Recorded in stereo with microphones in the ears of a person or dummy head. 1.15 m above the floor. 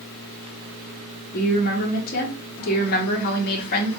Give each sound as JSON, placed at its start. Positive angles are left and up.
{"t": 1.3, "sound": "a woman speaking", "side_deg": 50, "distance_m": 1.7}